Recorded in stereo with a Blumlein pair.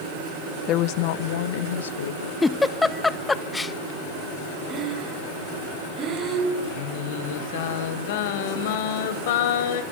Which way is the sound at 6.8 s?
50° left.